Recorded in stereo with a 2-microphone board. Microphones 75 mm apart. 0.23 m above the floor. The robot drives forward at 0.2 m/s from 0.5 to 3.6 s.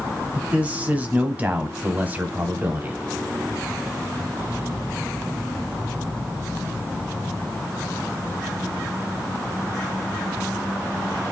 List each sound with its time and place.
0.3 s a man speaking: 20° right (ahead or behind), 1.1 m; by 3.0 s 25° right (ahead or behind), 1.0 m